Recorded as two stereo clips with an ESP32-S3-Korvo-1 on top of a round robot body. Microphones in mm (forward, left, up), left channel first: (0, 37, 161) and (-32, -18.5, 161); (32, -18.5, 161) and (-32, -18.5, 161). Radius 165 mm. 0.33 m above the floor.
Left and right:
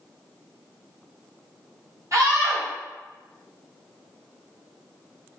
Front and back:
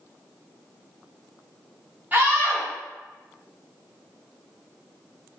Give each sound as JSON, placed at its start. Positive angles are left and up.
{"t": 2.1, "sound": "a scream", "azimuth_deg": -125, "distance_m": 1.8}